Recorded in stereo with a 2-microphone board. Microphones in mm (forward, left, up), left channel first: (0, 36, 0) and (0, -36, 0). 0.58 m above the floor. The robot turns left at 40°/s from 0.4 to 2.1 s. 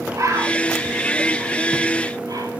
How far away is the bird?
About 4.5 m.